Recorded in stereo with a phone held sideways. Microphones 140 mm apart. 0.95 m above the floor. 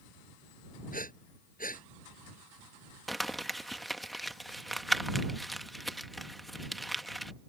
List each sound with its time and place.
0.9 s breathing: 80° left
3.1 s crumpling: centre (ahead or behind)